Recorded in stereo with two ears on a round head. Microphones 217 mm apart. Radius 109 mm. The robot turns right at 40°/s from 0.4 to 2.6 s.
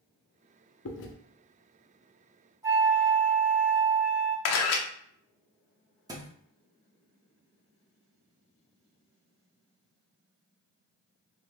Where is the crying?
I don't hear crying.